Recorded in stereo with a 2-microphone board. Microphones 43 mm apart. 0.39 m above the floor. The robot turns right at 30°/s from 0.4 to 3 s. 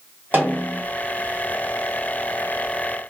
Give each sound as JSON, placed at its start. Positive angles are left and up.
{"t": 0.3, "sound": "a snare drum", "side_deg": -45, "distance_m": 1.5}